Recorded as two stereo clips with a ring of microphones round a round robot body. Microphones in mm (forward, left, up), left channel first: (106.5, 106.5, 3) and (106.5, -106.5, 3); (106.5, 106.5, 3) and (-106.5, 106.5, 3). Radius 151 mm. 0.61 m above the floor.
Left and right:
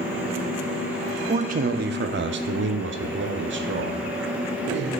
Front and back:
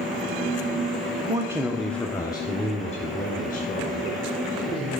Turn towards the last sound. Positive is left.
turn(degrees=-60)